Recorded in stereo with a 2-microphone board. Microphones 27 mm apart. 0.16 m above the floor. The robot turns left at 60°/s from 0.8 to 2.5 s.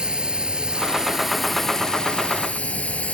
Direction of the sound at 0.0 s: 145° right.